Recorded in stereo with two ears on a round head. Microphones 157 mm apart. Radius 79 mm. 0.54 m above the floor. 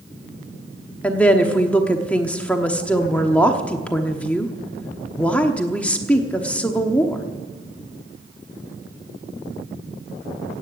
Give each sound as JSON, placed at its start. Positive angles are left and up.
{"t": 1.0, "sound": "a woman speaking", "side_deg": 10, "distance_m": 1.0}